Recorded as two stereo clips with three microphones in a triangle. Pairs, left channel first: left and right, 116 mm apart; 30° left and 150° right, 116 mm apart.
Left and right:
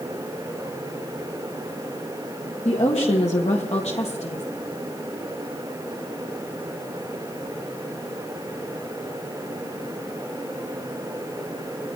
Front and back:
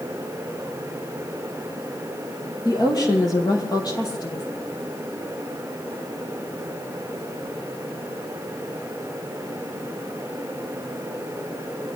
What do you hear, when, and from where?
2.6 s a woman speaking: 85° left, 5 m